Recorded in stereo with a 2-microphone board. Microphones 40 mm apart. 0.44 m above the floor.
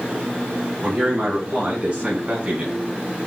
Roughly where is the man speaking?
Right.